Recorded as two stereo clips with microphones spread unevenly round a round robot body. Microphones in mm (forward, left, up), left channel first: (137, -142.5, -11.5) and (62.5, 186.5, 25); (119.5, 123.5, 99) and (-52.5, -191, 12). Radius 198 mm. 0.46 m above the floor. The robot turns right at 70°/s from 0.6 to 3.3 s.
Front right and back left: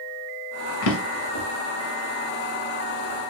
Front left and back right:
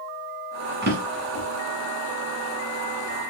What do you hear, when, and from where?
0.8 s a drawer: 55° right, 0.7 m; by 1.4 s 10° right, 0.7 m